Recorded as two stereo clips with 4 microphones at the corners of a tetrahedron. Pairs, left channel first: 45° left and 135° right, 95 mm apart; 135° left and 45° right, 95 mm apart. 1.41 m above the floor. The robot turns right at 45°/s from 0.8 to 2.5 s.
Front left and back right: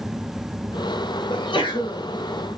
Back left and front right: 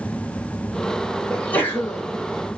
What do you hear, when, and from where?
1.3 s a sneeze: 55° left, 0.9 m; by 2.0 s 85° left, 0.9 m